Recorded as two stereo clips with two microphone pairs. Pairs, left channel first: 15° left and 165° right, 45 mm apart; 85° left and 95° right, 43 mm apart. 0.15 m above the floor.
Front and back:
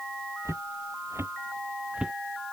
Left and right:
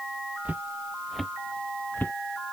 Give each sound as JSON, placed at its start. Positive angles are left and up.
{"t": 0.5, "sound": "footsteps", "azimuth_deg": -155}